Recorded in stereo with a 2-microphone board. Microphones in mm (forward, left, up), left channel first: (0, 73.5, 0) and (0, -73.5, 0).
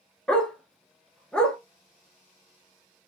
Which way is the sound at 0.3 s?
5° left (ahead or behind).